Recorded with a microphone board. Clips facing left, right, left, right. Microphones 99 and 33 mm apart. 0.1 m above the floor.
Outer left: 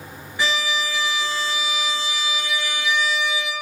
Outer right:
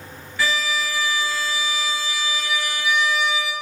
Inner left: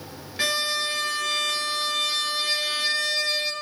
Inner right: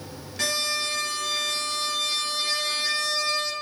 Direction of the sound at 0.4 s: 20° left (ahead or behind).